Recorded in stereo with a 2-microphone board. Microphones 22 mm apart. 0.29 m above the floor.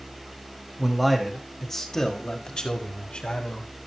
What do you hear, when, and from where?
0.8 s a man speaking: 10° right (ahead or behind), 1.9 m; by 3.7 s 55° left (ahead or behind), 2.5 m